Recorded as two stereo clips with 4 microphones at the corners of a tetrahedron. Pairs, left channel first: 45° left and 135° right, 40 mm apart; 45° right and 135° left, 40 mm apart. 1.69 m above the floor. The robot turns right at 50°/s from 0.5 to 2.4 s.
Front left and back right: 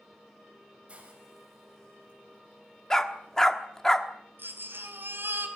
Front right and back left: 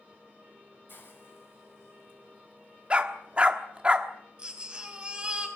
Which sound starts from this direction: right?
A hiss, at 0.9 s.